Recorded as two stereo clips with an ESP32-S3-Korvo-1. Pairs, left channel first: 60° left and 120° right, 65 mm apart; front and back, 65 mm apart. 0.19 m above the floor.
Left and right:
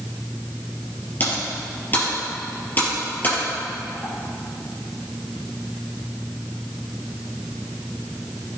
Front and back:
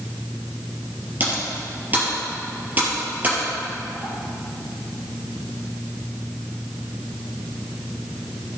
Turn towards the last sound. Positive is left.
turn(degrees=120)